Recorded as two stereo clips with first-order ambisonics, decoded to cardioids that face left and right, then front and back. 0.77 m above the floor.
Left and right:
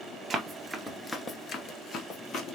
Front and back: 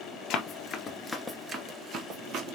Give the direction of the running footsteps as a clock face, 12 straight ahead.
1 o'clock.